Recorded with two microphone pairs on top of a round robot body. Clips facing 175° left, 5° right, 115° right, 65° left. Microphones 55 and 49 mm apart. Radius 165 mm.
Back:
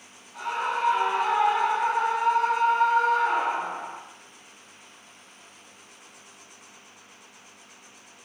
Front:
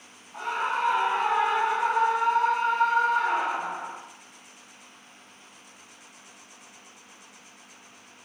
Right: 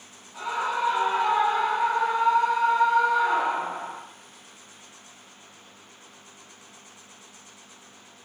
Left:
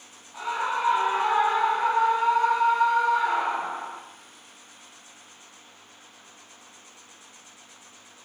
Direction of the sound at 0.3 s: 5° right.